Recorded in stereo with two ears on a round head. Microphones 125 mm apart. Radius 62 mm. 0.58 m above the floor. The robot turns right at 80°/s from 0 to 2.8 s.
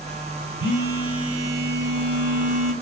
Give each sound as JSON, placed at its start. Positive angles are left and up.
{"t": 0.6, "sound": "a phone buzzing", "azimuth_deg": -95, "distance_m": 1.3}